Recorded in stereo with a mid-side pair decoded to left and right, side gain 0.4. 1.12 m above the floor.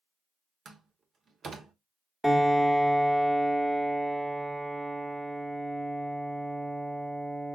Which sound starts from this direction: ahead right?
A door slam, at 0.7 s.